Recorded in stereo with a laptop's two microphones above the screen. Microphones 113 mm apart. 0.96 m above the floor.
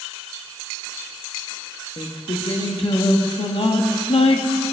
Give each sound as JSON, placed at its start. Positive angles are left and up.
{"t": 2.0, "sound": "singing", "side_deg": 55, "distance_m": 1.0}